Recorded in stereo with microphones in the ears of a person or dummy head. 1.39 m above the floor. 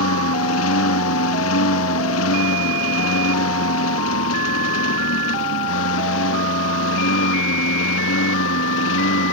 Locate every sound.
0.0 s a lawn mower: 85° left; by 9.3 s 80° left